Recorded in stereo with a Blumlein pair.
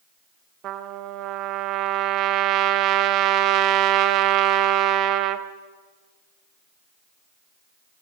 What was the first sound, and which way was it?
A trumpet, 35° right.